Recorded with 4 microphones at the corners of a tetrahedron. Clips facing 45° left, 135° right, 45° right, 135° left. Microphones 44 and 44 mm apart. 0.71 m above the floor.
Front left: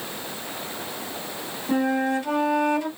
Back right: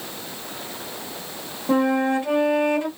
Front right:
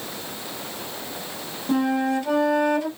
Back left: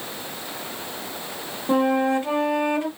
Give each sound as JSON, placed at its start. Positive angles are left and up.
{"t": 1.7, "sound": "a flute", "azimuth_deg": -175, "distance_m": 1.1}